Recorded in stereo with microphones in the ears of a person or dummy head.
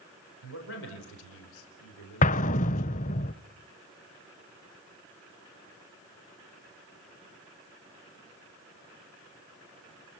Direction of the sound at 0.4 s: 70° left (ahead or behind).